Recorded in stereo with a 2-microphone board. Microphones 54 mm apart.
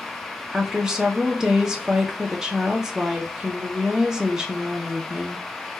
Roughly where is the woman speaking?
Centre.